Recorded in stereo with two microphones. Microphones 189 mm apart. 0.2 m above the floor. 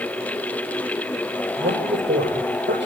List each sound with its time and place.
1.6 s a man speaking: 70° right (ahead or behind), 7.5 m